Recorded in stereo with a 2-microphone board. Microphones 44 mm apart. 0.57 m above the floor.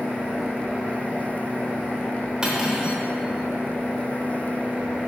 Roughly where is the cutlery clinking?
Centre.